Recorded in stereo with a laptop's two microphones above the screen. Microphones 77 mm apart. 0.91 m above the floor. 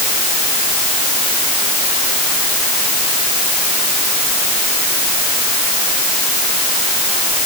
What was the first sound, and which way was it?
Only background noise.